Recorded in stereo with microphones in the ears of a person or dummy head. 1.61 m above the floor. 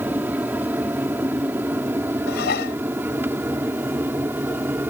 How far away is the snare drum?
I don't hear a snare drum.